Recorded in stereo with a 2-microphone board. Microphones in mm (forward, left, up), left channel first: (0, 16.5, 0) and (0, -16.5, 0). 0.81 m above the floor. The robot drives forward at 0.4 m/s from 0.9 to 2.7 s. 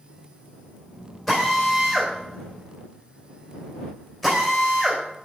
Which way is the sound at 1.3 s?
10° left (ahead or behind).